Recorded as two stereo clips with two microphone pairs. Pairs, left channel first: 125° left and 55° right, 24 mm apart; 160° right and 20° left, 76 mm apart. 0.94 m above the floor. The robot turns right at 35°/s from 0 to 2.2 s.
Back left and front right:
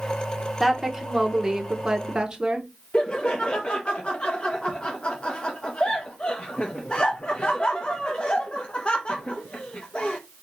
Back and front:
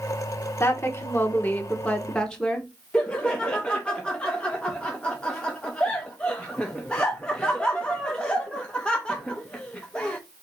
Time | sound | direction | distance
0.6 | a woman speaking | 145° right | 0.9 m
2.9 | laughter | 125° left | 0.6 m